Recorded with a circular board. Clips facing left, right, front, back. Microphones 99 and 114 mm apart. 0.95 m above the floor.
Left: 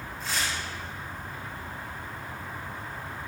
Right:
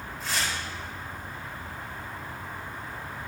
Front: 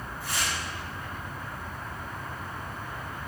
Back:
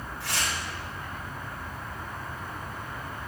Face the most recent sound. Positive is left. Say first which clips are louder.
# right 1 dB, even
turn(degrees=180)